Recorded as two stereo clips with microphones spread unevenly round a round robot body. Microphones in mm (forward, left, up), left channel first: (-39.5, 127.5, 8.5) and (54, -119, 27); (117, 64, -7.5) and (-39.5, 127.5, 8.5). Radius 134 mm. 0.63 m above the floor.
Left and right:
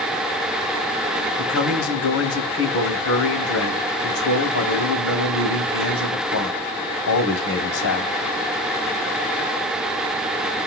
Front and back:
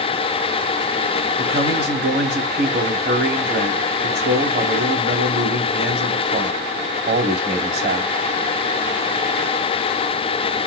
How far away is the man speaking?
About 3.5 m.